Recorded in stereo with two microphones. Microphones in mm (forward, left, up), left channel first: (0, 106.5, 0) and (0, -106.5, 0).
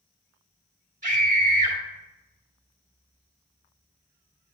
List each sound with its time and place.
1.0 s a scream: 35° right (ahead or behind), 2 m